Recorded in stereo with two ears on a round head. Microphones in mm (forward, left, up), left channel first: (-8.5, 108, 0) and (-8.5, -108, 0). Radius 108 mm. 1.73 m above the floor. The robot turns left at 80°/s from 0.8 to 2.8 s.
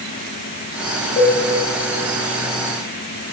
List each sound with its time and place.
1.2 s a cowbell: 35° left (ahead or behind), 1.5 m; by 1.4 s 40° left (ahead or behind), 1.5 m